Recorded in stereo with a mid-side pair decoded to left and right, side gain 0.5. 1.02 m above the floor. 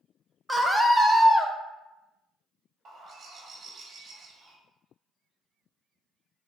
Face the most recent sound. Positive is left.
turn(degrees=-45)